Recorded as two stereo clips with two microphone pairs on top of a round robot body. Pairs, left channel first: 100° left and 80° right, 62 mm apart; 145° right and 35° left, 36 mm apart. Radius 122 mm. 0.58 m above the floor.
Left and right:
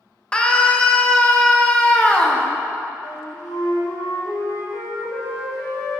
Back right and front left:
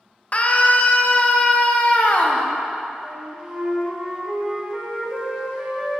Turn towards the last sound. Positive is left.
turn(degrees=115)